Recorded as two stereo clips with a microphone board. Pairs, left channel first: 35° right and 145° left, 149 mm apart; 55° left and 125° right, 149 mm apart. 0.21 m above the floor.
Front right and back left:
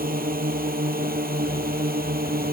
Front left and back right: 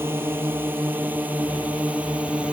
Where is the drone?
160° left; by 2.5 s 155° left.